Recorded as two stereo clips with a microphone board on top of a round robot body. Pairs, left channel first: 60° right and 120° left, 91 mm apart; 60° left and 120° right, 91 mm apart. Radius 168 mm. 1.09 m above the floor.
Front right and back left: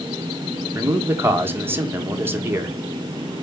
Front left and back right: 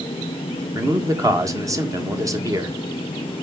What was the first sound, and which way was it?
A man speaking, 175° right.